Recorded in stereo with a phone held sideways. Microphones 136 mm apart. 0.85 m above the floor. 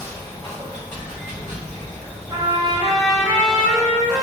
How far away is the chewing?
I don't hear chewing.